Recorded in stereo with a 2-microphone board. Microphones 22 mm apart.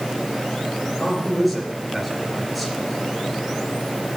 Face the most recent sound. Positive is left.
turn(degrees=-5)  # may be behind; listen again after turning